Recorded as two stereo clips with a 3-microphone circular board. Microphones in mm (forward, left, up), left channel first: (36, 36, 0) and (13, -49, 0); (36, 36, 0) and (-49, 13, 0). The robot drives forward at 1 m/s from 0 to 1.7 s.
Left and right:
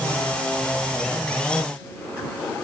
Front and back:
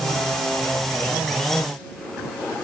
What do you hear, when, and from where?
Only background noise.